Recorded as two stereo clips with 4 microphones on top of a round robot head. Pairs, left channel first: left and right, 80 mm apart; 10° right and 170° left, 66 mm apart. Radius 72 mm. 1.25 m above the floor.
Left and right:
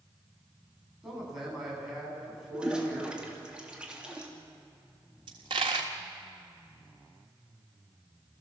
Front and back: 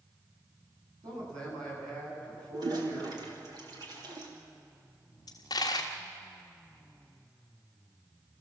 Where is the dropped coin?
55° right, 1.4 m.